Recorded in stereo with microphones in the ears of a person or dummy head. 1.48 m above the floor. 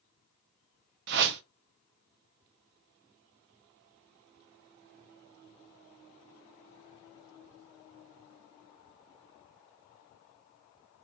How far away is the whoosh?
About 0.5 m.